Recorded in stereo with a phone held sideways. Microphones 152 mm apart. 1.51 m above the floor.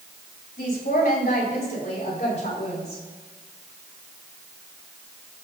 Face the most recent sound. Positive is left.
turn(degrees=45)  # may be behind; listen again after turning